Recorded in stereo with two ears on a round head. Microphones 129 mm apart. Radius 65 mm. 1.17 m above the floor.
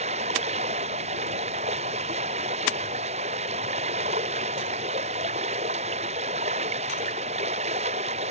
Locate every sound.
0.0 s running water: 45° right (ahead or behind)